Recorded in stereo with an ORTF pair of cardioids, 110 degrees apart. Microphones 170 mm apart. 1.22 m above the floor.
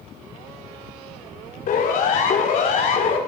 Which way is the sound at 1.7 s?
60° left.